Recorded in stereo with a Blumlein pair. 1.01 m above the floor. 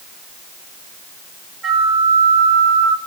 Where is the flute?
10° right, 2 m.